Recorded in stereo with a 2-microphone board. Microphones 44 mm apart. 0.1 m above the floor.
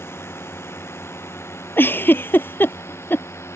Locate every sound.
0.0 s a drone: 65° left (ahead or behind); by 3.6 s 80° left
1.8 s a giggle: 55° left (ahead or behind)